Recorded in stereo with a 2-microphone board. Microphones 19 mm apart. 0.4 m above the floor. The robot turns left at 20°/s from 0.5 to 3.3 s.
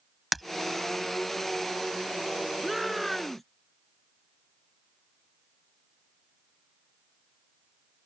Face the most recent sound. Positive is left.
turn(degrees=10)  # may be behind; listen again after turning